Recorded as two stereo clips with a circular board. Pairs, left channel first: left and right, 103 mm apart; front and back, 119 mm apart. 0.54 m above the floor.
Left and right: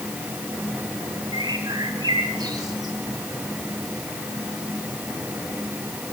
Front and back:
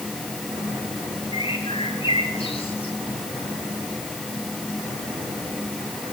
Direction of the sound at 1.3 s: 35° right.